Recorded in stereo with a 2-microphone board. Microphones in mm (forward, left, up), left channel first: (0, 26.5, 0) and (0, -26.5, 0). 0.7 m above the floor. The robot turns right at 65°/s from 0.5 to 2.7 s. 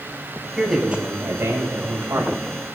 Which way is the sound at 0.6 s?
Straight behind.